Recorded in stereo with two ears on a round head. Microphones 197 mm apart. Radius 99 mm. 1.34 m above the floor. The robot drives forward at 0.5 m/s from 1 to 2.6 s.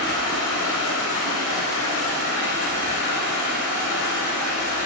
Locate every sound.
0.0 s running water: 55° left (ahead or behind), 1.6 m